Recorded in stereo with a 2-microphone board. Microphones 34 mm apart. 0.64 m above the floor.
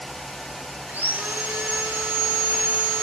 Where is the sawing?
80° right, 4 m.